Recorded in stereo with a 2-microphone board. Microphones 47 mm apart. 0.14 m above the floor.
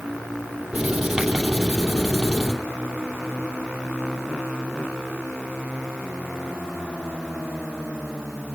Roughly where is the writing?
Centre.